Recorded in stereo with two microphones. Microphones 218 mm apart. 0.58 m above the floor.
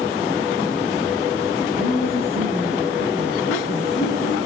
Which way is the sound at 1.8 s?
80° left.